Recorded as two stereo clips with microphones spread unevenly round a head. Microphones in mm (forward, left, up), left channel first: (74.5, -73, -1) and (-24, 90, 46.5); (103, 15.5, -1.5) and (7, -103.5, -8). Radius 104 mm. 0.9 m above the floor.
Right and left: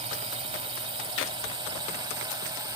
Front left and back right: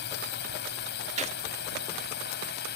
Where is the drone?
60° left; by 2.8 s 50° left.